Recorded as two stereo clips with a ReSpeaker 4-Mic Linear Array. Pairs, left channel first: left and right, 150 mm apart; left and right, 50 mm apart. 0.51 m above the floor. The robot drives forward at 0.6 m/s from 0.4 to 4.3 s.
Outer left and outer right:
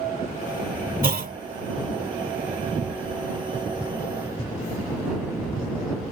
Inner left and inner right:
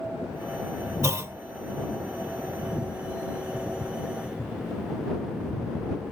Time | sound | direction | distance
1.0 | a clunk | 70° right (ahead or behind) | ?